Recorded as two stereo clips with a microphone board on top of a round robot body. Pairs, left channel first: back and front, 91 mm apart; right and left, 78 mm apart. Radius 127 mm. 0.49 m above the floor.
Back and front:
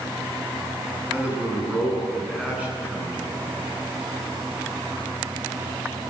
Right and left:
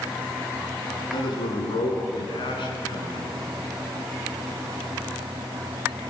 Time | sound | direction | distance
1.1 | a man speaking | 75° right | 7 m